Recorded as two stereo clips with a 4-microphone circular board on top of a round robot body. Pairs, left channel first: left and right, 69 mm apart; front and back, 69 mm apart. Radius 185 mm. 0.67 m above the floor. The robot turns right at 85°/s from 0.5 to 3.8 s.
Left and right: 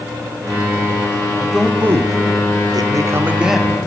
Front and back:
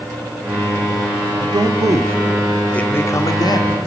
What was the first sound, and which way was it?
A man speaking, 170° left.